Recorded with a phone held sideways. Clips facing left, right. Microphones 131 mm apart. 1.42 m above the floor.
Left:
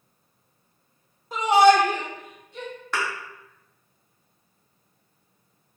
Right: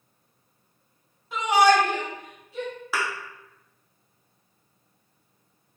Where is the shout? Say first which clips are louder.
Left 3 dB; 40° left (ahead or behind), 0.8 m; by 2.7 s 5° right (ahead or behind), 1.5 m.